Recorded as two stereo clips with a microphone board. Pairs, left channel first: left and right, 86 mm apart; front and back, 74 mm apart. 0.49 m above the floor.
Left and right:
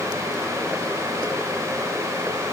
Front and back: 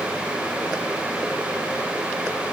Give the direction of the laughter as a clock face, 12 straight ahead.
No laughter in this recording.